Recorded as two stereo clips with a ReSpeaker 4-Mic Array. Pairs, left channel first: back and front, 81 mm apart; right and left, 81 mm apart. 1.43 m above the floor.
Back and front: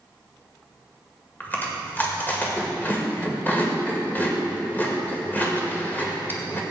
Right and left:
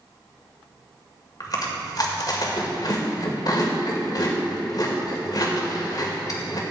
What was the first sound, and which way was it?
Chewing, 115° right.